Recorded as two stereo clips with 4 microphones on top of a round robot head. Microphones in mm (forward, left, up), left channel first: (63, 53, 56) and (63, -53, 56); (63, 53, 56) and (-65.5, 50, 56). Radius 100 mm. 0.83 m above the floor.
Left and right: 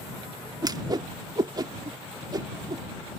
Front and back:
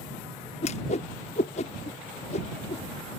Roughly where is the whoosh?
Ahead right.